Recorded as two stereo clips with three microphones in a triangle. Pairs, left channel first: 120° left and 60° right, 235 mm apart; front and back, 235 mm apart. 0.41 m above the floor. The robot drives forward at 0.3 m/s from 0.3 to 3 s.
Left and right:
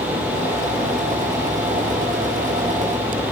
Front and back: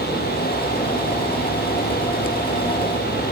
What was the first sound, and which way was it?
Only background noise.